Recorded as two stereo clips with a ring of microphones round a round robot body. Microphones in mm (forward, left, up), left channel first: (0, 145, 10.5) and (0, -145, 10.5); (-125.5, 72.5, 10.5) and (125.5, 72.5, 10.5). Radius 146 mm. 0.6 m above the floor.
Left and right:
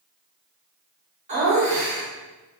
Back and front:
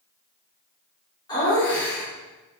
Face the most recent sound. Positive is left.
turn(degrees=-125)